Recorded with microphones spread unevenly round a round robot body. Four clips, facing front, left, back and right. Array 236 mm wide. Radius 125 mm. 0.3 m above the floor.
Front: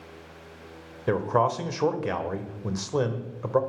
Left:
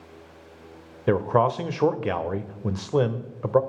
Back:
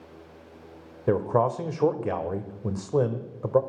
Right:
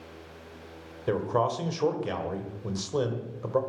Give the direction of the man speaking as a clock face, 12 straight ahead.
8 o'clock.